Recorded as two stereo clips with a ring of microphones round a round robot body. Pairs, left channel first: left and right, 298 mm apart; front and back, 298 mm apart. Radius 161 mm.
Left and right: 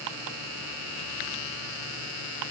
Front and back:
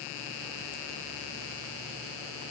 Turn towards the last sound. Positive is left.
No sound to turn to.